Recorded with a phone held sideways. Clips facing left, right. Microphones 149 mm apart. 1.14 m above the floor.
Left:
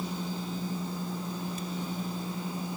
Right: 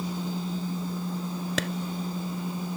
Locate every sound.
1.6 s a clap: 70° right (ahead or behind)